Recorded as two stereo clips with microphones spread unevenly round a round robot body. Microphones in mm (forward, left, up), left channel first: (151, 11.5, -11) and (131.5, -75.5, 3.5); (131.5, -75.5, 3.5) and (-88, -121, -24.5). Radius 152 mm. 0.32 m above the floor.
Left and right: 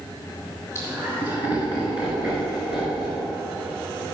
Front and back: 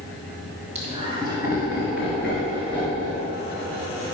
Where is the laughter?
135° left, 1.6 m; by 3.3 s 95° left, 3 m.